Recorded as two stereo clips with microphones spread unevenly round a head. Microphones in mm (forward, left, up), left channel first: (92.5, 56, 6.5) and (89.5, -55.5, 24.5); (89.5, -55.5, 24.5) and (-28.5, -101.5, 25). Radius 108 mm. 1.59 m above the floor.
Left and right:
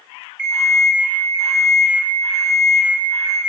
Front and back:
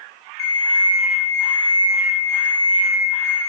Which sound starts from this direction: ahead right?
An alarm clock, at 0.4 s.